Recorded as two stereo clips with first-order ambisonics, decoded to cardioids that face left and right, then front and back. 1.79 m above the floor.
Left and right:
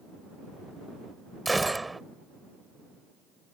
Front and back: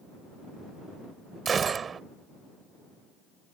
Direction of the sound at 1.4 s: 165° right.